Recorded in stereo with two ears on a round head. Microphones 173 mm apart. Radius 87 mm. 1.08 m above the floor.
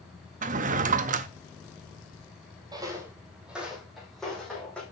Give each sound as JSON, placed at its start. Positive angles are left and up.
{"t": 0.4, "sound": "a drawer", "side_deg": -40, "distance_m": 0.6}
{"t": 2.7, "sound": "footsteps", "side_deg": -20, "distance_m": 1.8}